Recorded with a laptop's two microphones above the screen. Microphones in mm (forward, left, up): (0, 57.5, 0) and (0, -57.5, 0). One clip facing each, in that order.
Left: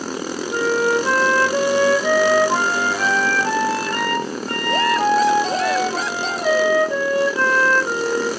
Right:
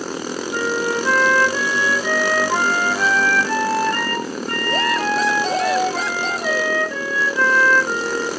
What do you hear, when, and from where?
0.5 s a flute: 25° left (ahead or behind), 0.6 m